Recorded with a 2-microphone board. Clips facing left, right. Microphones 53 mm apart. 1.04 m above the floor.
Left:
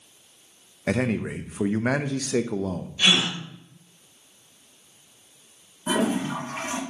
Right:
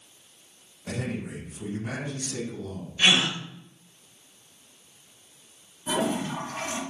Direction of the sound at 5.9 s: 30° left (ahead or behind).